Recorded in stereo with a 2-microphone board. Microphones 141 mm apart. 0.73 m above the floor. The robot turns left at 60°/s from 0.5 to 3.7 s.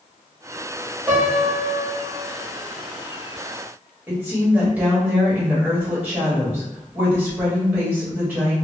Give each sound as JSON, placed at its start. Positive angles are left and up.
{"t": 1.1, "sound": "a piano", "azimuth_deg": 160, "distance_m": 1.3}
{"t": 4.1, "sound": "a woman speaking", "side_deg": -15, "distance_m": 1.4}